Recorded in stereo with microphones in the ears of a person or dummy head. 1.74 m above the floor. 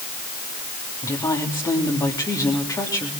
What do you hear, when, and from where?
1.0 s a woman speaking: 20° left (ahead or behind), 3 m